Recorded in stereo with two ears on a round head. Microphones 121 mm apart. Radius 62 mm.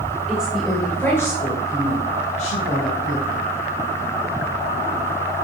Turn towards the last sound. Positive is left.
turn(degrees=60)  # may be behind; listen again after turning